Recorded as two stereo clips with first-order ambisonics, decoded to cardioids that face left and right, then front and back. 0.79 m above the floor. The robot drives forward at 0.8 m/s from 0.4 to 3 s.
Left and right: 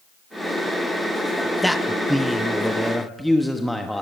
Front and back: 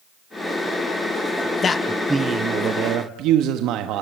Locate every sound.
1.6 s a man speaking: straight ahead, 0.7 m; by 4.0 s straight behind, 1.1 m